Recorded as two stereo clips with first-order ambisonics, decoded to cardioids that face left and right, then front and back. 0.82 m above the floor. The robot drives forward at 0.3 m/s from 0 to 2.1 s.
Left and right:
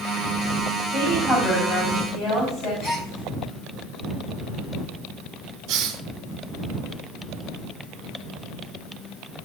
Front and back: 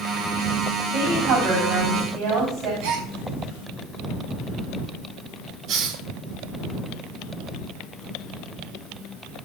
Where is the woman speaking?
160° left, 6 m; by 2.7 s 165° left, 6.5 m.